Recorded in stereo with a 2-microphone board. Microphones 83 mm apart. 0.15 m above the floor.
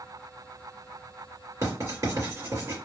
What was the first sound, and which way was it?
Writing, 40° right (ahead or behind).